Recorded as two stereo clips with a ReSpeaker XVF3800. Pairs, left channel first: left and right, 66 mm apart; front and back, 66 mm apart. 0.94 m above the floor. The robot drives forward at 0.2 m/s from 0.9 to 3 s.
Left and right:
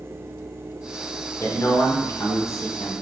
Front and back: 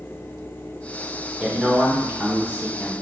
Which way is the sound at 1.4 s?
105° left.